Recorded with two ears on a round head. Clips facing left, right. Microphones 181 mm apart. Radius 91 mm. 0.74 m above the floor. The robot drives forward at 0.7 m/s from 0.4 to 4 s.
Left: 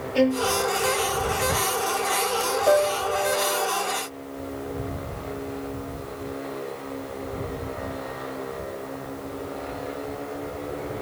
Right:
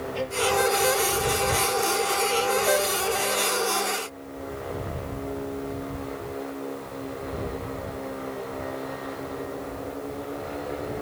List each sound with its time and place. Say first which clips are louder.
0.1 s a violin: left 8 dB; 70° left (ahead or behind); by 0.5 s 65° left (ahead or behind)
2.7 s a piano: left 4 dB; 60° left (ahead or behind); by 3.7 s 70° left (ahead or behind)